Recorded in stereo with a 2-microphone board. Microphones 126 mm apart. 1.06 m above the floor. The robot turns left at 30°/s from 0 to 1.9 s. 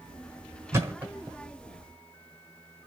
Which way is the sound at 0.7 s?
20° right (ahead or behind).